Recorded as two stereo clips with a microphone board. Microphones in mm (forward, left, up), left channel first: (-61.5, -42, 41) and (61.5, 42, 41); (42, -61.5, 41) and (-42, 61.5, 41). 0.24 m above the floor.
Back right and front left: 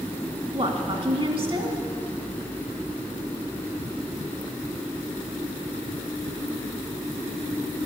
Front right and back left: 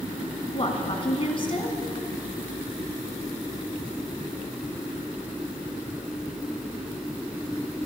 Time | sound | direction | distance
0.5 | a woman speaking | 10° right | 2 m